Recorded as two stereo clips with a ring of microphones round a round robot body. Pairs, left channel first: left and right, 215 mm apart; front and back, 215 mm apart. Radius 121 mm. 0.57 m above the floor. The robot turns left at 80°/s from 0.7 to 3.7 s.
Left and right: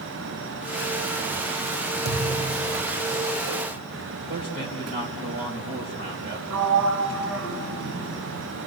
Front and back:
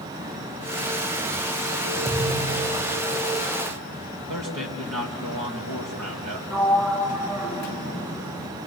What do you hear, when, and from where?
2.0 s a thud: 65° right, 5 m; by 3.0 s 140° right, 5 m
4.3 s a man speaking: 155° right, 3 m
6.5 s a sliding door: 95° right, 3 m